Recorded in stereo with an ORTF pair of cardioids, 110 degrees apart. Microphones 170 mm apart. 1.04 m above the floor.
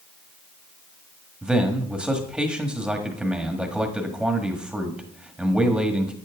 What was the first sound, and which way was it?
A man speaking, 5° right.